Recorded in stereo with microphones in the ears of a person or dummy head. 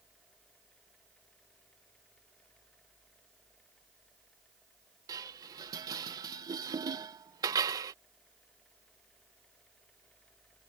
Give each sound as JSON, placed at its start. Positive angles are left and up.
{"t": 5.1, "sound": "dishes clattering", "side_deg": -20}